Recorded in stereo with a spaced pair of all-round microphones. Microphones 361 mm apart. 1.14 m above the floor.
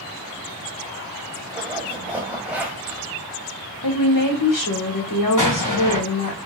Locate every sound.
1.5 s a zipper: 5° right (ahead or behind), 1.0 m
3.8 s a woman speaking: 60° left (ahead or behind), 1.3 m
5.4 s an explosion: 55° left (ahead or behind), 1.4 m